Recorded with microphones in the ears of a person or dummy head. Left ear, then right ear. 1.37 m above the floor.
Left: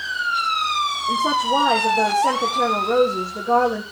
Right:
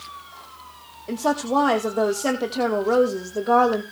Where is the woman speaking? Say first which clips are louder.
Left 1 dB; 80° right, 2.0 m.